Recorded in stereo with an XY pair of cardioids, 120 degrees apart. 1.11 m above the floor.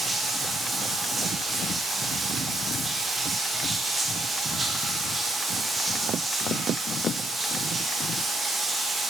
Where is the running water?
20° right, 0.9 m.